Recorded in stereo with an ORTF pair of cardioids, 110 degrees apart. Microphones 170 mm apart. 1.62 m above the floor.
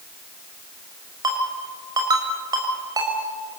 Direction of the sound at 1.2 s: 20° right.